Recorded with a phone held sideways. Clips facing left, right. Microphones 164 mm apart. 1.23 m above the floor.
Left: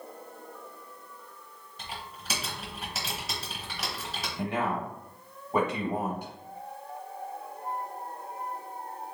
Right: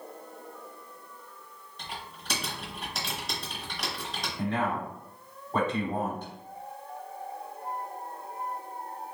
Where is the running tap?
No running tap in this recording.